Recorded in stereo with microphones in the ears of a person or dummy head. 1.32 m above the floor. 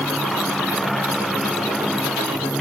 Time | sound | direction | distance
0.0 | a motorcycle | centre (ahead or behind) | ?